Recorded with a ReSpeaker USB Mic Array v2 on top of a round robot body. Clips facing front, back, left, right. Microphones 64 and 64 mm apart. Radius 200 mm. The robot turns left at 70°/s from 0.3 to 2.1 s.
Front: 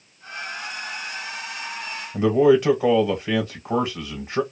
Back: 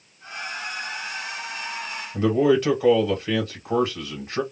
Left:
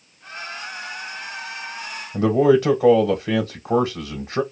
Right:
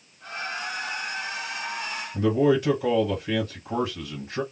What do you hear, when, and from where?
2.1 s a man speaking: 75° left, 1.2 m